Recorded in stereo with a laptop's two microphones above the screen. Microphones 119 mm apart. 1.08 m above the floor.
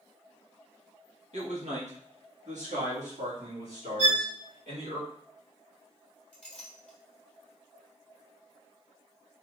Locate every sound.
1.3 s a man speaking: 75° right (ahead or behind), 1.1 m; by 5.0 s 85° right, 3 m
4.0 s a violin: 60° right (ahead or behind), 2 m
6.3 s a clink: 10° left (ahead or behind), 1.4 m